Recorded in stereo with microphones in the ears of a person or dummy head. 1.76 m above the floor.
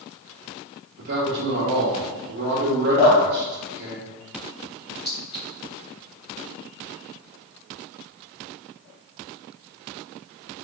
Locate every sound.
1.0 s a man speaking: 55° right (ahead or behind), 0.9 m
3.0 s dripping: 60° left (ahead or behind), 1.8 m
5.0 s a clink: 25° left (ahead or behind), 1.8 m